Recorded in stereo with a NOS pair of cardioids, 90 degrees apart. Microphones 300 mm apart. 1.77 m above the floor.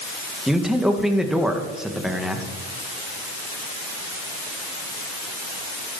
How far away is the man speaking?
About 2.5 m.